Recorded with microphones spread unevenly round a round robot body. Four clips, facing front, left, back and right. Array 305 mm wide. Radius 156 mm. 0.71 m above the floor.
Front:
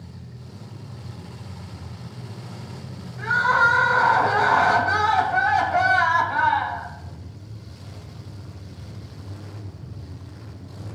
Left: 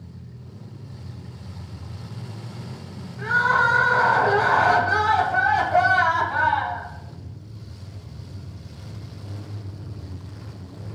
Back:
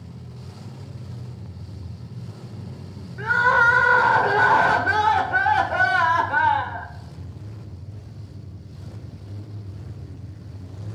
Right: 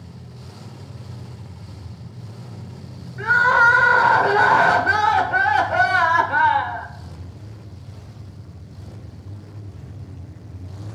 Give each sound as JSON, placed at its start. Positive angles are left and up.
{"t": 3.2, "sound": "crying", "azimuth_deg": -140, "distance_m": 1.2}